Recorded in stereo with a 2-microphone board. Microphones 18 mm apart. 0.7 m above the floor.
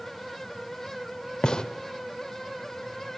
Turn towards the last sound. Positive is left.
turn(degrees=50)  # may be behind; listen again after turning